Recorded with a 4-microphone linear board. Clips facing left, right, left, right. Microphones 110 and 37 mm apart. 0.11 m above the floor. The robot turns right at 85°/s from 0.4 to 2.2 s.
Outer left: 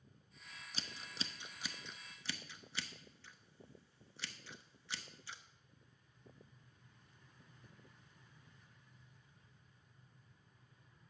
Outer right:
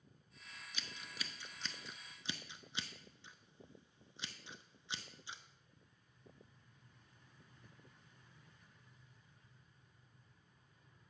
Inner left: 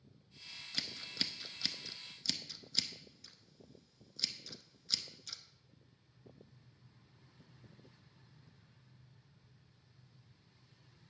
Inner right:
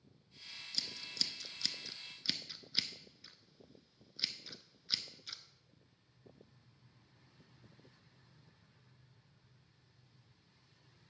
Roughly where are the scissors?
Left.